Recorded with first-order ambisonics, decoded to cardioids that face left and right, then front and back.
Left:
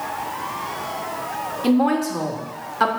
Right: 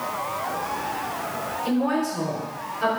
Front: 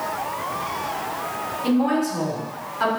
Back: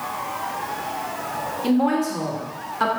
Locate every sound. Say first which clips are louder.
1.6 s a woman speaking: left 6 dB, even; 105° left, 2 m